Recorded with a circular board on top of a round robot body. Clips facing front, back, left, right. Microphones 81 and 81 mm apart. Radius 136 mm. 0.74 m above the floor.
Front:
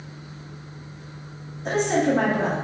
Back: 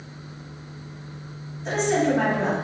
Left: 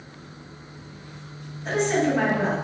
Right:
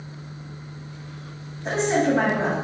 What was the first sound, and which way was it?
A woman speaking, 30° right.